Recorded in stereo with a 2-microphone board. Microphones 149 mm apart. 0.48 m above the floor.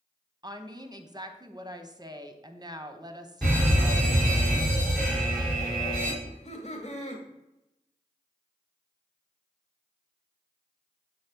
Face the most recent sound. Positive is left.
turn(degrees=50)  # may be behind; listen again after turning